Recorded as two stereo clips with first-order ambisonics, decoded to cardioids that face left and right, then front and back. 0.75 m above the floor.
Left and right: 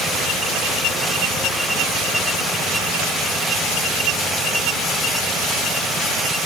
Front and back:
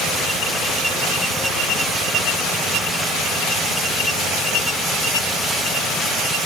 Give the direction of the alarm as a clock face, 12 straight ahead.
No alarm in this recording.